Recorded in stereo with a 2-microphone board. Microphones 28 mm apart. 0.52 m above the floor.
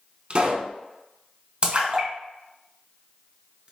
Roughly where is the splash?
Right.